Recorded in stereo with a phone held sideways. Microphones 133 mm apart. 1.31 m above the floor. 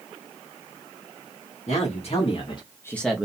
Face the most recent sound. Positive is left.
turn(degrees=-10)  # may be behind; listen again after turning